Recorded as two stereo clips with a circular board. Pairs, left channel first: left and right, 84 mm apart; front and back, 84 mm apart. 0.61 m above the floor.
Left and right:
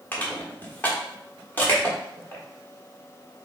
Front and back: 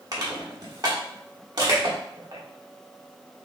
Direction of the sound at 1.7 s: 155° left.